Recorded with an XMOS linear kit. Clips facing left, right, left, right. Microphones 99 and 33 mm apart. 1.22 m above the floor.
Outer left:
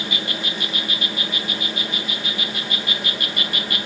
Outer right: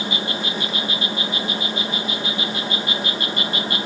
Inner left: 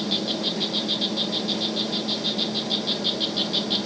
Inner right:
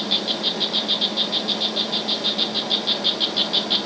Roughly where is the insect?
Right.